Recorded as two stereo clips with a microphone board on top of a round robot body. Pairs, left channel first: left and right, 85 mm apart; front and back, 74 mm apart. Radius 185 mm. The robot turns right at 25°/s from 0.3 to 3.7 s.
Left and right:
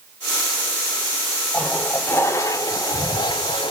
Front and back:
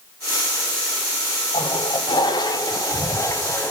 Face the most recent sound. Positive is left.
turn(degrees=65)